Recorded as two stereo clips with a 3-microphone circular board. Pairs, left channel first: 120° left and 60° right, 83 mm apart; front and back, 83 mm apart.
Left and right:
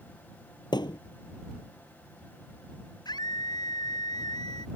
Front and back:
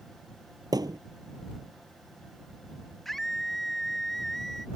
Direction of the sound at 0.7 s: 145° left.